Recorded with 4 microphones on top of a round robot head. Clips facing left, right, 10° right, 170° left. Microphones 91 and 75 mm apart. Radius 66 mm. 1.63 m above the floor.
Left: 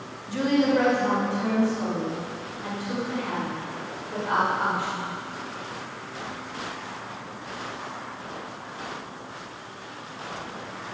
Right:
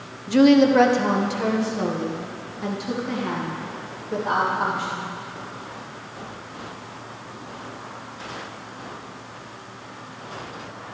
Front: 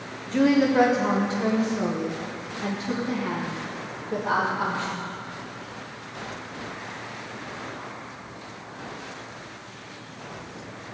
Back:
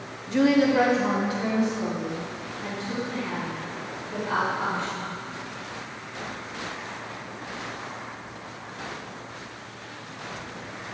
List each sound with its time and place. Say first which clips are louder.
0.3 s a woman speaking: right 8 dB, even; 105° right, 1.0 m; by 5.1 s 45° right, 4 m